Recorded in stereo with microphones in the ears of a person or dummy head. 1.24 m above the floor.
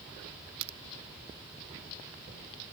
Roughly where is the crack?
Right.